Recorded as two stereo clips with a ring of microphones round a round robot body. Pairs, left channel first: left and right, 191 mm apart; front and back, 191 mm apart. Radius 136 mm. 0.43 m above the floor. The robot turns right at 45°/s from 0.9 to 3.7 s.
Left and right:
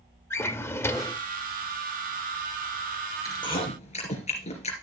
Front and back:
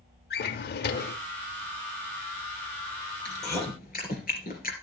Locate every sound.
0.3 s a drawer: 15° left, 0.7 m; by 1.2 s 30° left, 0.7 m
3.2 s chewing: 15° left, 3.5 m; by 4.7 s 40° left, 3.5 m